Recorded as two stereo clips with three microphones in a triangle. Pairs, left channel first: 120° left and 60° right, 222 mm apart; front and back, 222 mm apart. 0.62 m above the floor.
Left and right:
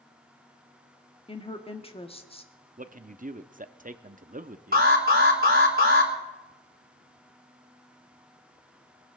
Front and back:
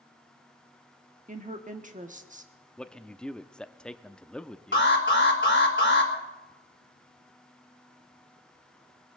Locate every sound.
1.3 s a woman speaking: 165° left, 1.1 m
2.8 s a man speaking: 85° right, 0.7 m
4.7 s an alarm: 25° right, 3.5 m